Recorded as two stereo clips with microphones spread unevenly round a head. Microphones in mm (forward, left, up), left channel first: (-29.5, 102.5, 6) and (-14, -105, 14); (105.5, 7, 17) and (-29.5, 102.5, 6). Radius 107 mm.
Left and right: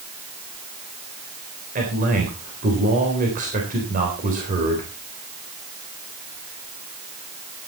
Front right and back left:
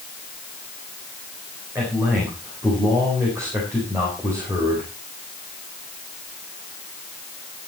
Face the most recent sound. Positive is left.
turn(degrees=-135)